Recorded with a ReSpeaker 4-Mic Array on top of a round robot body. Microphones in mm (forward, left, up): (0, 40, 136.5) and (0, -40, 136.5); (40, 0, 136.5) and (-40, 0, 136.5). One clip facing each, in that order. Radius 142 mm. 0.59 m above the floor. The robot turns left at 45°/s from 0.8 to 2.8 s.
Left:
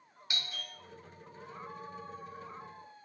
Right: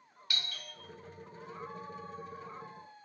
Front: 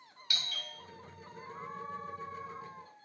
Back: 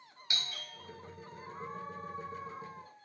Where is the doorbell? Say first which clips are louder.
Even, even; 140° left, 1.1 m.